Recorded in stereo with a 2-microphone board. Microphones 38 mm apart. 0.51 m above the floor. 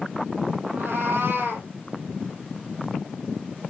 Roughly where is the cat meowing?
Right.